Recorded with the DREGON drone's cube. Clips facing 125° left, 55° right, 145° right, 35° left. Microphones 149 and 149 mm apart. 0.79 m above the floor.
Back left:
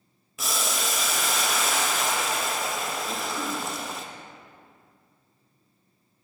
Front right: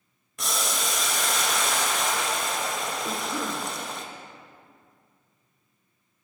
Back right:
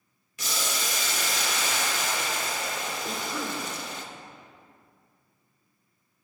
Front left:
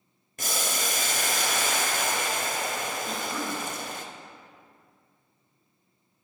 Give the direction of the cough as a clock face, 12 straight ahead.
2 o'clock.